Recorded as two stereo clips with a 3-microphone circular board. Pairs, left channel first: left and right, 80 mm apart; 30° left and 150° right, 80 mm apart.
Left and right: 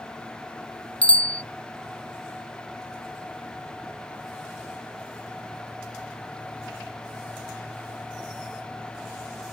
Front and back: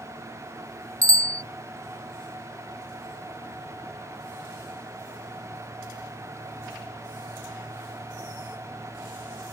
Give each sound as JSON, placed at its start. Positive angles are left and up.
{"t": 1.0, "sound": "a bicycle bell", "azimuth_deg": 165}